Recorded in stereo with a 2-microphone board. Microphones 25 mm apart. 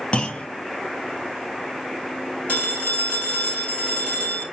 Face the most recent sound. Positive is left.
turn(degrees=80)